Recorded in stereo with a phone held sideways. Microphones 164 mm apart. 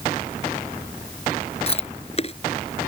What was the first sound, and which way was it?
Chewing, 40° left (ahead or behind).